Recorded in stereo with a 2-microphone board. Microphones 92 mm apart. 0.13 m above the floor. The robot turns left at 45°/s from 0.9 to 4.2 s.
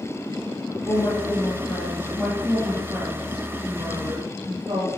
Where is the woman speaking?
70° left, 5 m; by 4.9 s 80° right, 5 m.